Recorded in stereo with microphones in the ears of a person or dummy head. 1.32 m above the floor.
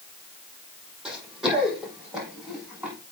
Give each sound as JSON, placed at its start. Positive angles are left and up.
{"t": 1.1, "sound": "running footsteps", "side_deg": 0, "distance_m": 3.0}